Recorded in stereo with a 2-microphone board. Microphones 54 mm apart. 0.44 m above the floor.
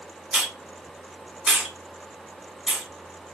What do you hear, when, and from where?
0.3 s a hiss: 10° right (ahead or behind), 1.6 m